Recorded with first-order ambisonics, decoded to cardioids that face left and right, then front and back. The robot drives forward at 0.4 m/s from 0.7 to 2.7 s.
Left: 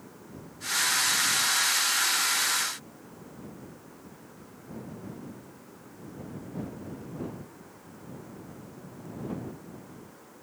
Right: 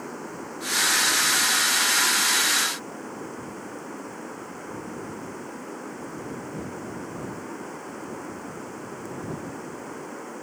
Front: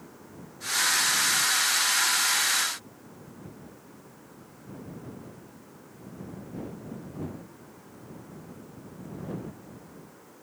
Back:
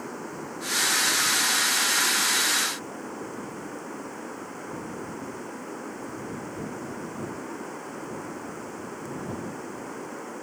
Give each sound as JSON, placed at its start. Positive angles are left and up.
{"t": 0.0, "sound": "running water", "azimuth_deg": -135}